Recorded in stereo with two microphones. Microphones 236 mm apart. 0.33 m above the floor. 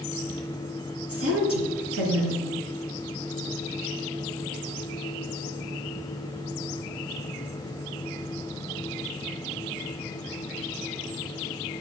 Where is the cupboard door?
I don't hear a cupboard door.